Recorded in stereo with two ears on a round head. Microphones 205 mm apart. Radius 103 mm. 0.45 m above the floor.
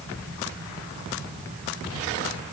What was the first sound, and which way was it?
Only background noise.